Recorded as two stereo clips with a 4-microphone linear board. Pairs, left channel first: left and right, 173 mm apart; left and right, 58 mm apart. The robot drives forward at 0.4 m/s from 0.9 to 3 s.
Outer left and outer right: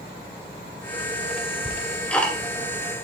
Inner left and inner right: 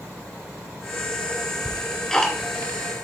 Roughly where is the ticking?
Centre.